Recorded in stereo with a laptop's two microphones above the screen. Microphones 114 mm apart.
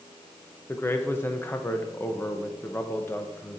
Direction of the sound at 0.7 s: 20° left (ahead or behind).